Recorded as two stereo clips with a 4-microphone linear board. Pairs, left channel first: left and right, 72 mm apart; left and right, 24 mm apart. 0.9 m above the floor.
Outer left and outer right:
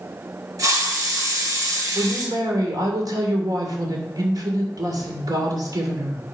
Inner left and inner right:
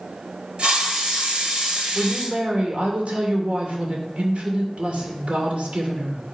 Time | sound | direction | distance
0.6 | a hiss | 50° right (ahead or behind) | 2.5 m
1.9 | a woman speaking | 60° right (ahead or behind) | 2.5 m